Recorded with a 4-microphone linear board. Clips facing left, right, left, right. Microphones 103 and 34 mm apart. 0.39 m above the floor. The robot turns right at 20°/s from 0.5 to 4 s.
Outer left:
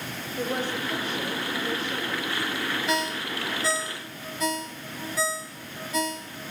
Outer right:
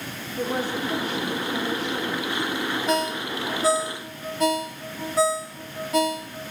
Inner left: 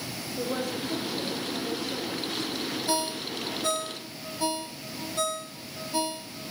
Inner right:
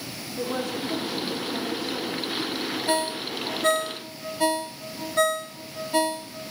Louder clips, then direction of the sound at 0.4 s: Outer right 3 dB, inner right 2 dB; 140° right.